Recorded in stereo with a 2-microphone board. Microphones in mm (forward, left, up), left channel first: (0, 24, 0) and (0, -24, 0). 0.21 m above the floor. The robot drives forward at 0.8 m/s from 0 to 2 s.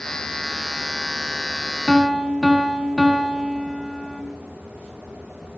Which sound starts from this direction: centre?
A piano, at 1.9 s.